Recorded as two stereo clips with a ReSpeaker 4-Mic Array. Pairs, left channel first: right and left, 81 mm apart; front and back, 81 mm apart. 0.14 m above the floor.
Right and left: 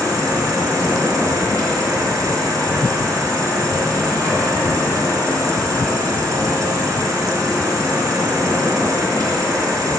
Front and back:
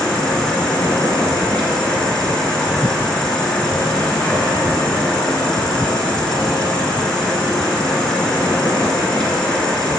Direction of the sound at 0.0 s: 75° left.